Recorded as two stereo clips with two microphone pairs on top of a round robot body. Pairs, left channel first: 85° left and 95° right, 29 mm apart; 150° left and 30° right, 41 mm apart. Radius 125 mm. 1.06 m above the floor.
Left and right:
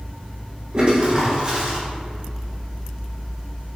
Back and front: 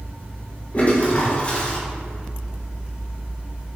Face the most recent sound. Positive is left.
turn(degrees=-155)